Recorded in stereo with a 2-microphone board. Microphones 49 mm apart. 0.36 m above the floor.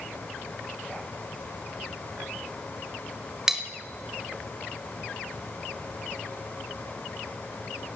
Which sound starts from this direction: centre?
Cutlery clinking, at 3.5 s.